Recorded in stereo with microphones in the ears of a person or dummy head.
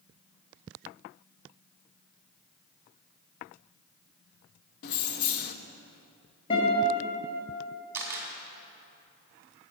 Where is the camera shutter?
15° right (ahead or behind), 2.5 m.